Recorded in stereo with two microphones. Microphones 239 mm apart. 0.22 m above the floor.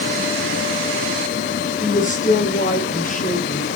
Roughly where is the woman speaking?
Left.